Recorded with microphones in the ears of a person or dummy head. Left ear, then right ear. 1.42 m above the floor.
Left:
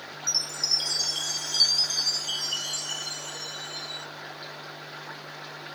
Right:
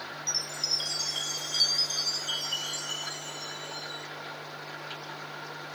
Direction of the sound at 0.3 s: 10° left (ahead or behind).